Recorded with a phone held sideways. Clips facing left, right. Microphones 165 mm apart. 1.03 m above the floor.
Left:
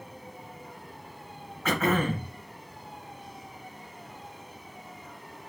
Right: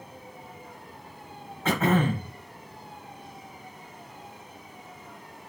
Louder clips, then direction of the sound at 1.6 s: Right 2 dB; 30° right (ahead or behind).